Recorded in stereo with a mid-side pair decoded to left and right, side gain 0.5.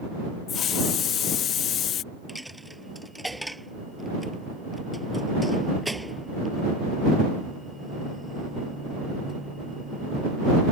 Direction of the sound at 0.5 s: 60° left.